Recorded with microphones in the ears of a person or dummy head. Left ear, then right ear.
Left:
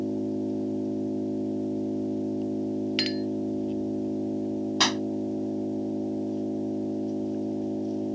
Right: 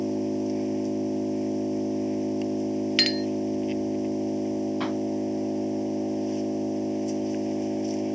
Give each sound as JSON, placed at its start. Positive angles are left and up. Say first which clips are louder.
{"t": 0.0, "sound": "an engine running", "louder": "right 2 dB", "side_deg": -70}
{"t": 3.0, "sound": "a clink", "louder": "right 7 dB", "side_deg": -20}
{"t": 4.8, "sound": "a pop", "louder": "left 5 dB", "side_deg": 80}